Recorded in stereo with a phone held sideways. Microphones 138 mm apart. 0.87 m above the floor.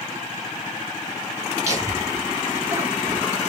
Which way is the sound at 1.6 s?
25° right (ahead or behind).